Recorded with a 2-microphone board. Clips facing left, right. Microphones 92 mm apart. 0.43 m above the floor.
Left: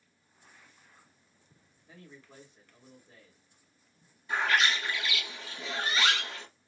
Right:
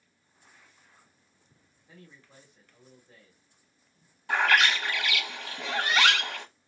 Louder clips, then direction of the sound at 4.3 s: Right 4 dB; 85° right.